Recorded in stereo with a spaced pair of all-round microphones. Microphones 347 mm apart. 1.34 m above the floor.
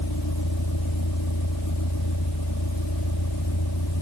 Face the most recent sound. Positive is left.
turn(degrees=85)